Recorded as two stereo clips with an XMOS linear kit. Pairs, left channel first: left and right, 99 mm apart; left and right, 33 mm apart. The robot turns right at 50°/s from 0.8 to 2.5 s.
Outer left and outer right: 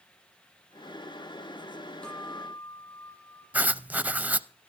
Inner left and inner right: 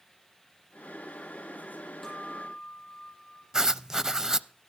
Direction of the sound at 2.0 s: 5° left (ahead or behind).